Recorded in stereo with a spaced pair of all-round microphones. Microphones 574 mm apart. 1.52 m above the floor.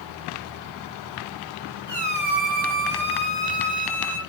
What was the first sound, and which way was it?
A squeak, 40° left (ahead or behind).